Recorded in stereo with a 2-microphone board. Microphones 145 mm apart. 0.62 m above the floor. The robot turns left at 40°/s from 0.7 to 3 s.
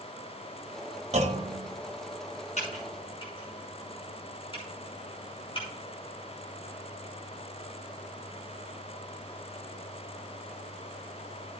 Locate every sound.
1.1 s a clunk: 45° right (ahead or behind), 1.2 m; by 1.7 s 40° right (ahead or behind), 1.2 m
2.6 s typing on a keyboard: 50° left (ahead or behind), 5.5 m; by 5.7 s 35° left (ahead or behind), 5.5 m